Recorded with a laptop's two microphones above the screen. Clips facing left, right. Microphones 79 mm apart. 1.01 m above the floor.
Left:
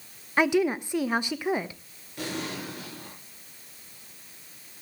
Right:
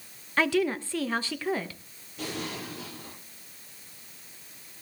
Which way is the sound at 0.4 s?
15° left (ahead or behind).